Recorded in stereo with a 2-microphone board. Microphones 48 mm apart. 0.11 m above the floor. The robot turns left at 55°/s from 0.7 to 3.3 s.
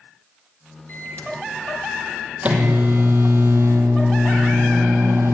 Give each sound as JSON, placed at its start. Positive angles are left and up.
{"t": 0.9, "sound": "a microwave", "azimuth_deg": 55, "distance_m": 3.5}